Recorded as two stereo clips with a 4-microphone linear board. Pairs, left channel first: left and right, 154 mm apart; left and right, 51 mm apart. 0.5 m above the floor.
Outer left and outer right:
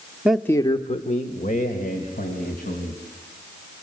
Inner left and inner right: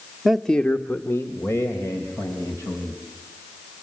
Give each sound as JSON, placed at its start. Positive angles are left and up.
{"t": 0.2, "sound": "a man speaking", "side_deg": -10, "distance_m": 0.8}